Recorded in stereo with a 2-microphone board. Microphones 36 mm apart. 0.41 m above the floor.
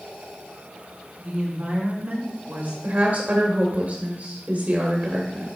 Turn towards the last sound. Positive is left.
turn(degrees=-50)  # may be behind; listen again after turning